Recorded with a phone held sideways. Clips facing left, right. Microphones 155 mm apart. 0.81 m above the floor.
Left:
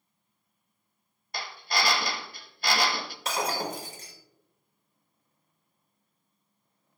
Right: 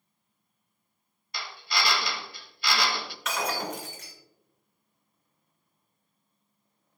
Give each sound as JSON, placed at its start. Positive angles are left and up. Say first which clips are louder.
{"t": 1.3, "sound": "a drill", "louder": "left 2 dB", "side_deg": 50, "distance_m": 0.8}
{"t": 3.2, "sound": "breaking glass", "louder": "left 1 dB", "side_deg": 35, "distance_m": 1.9}